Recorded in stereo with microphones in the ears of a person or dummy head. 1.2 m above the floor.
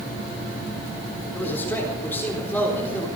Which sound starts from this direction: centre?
A man speaking, at 1.3 s.